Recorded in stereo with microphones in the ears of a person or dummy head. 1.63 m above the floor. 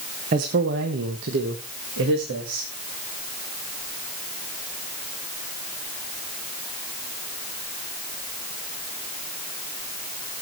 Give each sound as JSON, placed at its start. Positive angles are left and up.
{"t": 0.3, "sound": "a man speaking", "side_deg": -45, "distance_m": 0.9}